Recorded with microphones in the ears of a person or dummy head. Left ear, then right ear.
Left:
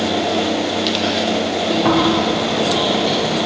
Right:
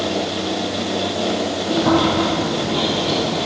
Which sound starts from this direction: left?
Chewing, at 1.7 s.